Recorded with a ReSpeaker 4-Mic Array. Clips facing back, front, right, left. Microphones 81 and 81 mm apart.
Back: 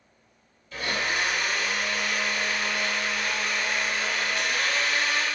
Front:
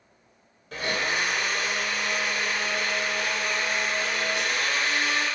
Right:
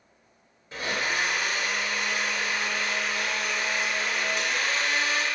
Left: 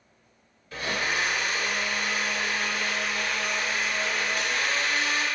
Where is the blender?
25° right, 1.3 m.